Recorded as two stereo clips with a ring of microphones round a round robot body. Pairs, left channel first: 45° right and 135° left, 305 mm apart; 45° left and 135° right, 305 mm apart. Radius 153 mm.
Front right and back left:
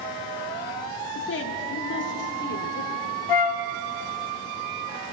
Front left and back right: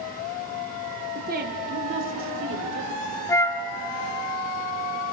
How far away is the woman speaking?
About 1.8 m.